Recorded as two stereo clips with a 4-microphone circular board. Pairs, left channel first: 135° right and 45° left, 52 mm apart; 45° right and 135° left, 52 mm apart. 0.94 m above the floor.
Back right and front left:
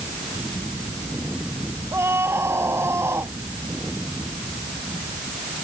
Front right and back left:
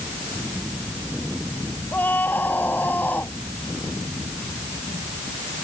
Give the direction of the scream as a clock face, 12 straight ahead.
12 o'clock.